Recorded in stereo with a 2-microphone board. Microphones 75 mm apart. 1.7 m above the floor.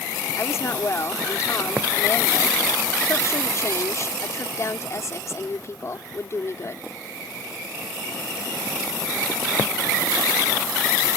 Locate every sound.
0.4 s a woman speaking: 40° left (ahead or behind)